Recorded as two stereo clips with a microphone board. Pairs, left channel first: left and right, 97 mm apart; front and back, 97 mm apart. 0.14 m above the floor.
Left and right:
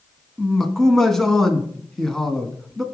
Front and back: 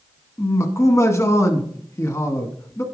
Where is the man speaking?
5° left, 1.2 m.